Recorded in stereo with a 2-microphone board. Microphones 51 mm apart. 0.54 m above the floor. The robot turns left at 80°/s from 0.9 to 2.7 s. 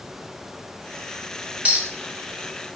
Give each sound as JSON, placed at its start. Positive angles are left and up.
{"t": 1.6, "sound": "a clink", "side_deg": -25, "distance_m": 0.6}